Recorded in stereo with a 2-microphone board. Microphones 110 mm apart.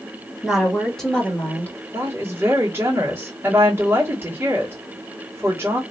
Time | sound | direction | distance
0.4 | a woman speaking | 5° right (ahead or behind) | 1.8 m
1.9 | a woman speaking | 20° right (ahead or behind) | 2 m